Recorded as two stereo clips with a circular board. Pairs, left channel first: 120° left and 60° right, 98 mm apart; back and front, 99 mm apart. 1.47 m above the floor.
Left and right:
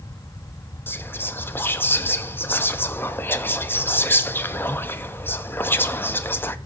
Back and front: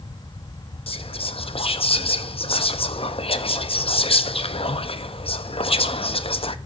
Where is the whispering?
170° right, 0.5 m.